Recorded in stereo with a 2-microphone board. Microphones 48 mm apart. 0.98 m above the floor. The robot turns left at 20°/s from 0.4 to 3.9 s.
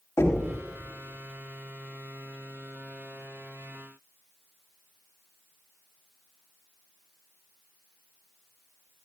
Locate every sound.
0.2 s knocking: 85° left, 4 m; by 0.5 s 90° left, 4 m